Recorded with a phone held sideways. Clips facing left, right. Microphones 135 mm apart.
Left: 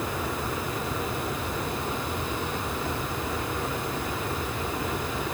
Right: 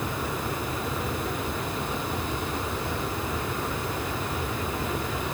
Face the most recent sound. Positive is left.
No sound to turn to.